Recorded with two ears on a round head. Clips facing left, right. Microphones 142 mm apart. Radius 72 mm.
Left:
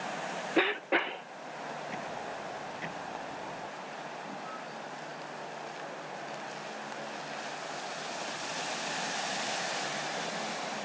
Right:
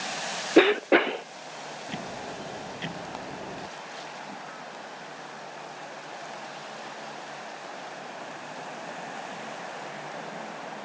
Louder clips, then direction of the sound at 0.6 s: Right 11 dB; 60° right (ahead or behind).